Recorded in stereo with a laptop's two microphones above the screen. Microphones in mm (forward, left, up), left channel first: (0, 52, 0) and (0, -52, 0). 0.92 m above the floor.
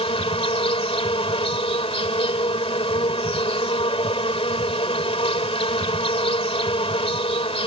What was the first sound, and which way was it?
An insect, 70° left (ahead or behind).